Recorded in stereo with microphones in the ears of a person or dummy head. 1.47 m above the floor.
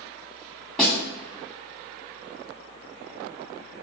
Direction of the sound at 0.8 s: 5° left (ahead or behind).